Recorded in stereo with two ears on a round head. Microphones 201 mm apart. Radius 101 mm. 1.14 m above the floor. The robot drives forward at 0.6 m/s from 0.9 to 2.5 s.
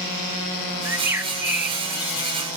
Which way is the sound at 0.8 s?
10° right (ahead or behind).